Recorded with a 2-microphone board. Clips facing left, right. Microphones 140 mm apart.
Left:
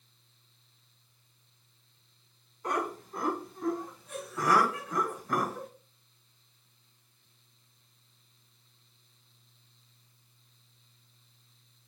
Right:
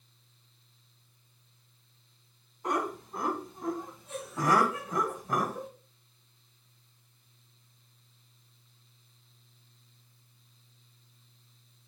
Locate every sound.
2.6 s laughter: 20° right (ahead or behind), 2.5 m